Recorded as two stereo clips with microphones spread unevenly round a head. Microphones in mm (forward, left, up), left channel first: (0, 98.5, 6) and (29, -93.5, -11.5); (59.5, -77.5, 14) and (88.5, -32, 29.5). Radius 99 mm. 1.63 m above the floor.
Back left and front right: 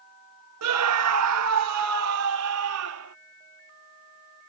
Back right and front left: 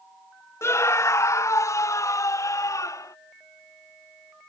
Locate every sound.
0.6 s a scream: 85° right; by 3.1 s 100° right